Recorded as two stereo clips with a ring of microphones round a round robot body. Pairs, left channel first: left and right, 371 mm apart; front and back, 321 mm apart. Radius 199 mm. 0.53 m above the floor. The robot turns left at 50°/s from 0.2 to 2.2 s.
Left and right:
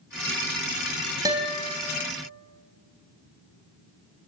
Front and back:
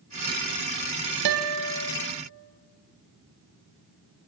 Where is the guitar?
170° right, 2.5 m; by 1.9 s 155° left, 2.5 m.